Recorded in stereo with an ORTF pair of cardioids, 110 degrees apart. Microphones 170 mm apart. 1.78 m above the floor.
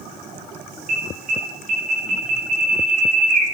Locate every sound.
0.9 s an alarm: 55° right, 4.5 m